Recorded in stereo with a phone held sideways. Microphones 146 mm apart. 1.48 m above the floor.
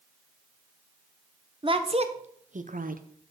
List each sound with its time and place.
1.6 s a woman speaking: 35° right (ahead or behind), 1.1 m; by 3.3 s 80° right, 0.8 m